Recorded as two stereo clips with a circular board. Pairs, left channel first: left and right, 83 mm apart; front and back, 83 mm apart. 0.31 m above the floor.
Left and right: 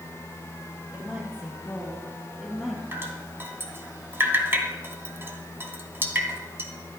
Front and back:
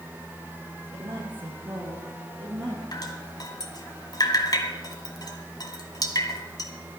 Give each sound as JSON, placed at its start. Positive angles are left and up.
{"t": 0.9, "sound": "a woman speaking", "azimuth_deg": -165, "distance_m": 9.0}
{"t": 2.9, "sound": "dripping", "azimuth_deg": -30, "distance_m": 2.0}